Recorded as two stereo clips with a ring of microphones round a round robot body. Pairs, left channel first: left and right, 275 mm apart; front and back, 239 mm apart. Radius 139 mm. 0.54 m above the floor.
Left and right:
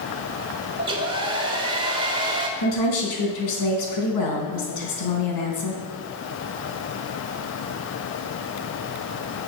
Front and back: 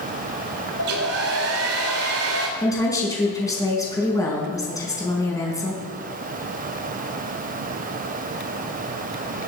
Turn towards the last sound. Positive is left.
turn(degrees=75)